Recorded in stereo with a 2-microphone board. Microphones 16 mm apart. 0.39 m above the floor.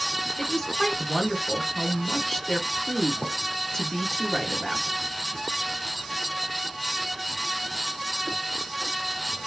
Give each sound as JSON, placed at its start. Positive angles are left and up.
{"t": 0.4, "sound": "a woman speaking", "side_deg": 35, "distance_m": 1.3}